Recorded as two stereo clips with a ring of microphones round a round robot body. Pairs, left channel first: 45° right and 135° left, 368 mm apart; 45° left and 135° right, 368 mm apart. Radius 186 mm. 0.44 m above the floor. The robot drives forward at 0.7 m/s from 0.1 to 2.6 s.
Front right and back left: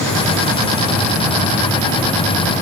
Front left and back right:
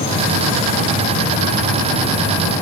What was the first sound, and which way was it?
Only background noise.